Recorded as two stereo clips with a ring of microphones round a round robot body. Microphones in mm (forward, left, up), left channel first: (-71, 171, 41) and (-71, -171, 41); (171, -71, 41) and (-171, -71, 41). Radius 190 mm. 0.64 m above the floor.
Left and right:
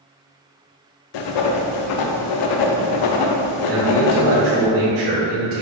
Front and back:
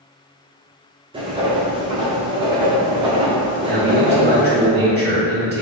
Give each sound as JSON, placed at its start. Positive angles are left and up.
{"t": 1.1, "sound": "writing", "azimuth_deg": 105, "distance_m": 0.5}
{"t": 3.7, "sound": "a man speaking", "azimuth_deg": -125, "distance_m": 1.3}